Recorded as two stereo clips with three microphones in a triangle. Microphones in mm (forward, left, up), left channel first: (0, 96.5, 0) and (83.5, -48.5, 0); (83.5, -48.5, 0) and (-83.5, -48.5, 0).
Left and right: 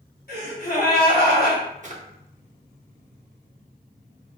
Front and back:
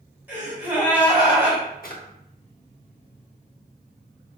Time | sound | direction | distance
0.3 | a gasp | 100° left | 1.6 m
1.8 | a drawer | 20° right | 0.7 m